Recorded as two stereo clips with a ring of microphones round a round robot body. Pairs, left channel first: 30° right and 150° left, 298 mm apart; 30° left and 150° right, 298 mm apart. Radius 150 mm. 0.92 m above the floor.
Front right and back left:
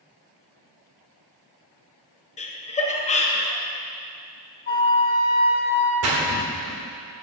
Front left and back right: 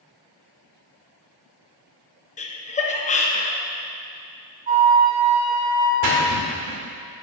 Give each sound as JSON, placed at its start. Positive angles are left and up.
{"t": 2.4, "sound": "laughter", "azimuth_deg": 0, "distance_m": 0.6}
{"t": 4.7, "sound": "a flute", "azimuth_deg": -85, "distance_m": 0.9}
{"t": 6.0, "sound": "a splash", "azimuth_deg": -170, "distance_m": 1.6}